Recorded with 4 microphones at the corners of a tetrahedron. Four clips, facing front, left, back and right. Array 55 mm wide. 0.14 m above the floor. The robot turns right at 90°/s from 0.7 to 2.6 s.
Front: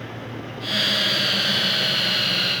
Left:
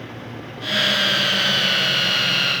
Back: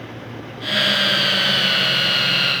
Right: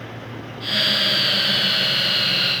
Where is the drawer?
I don't hear a drawer.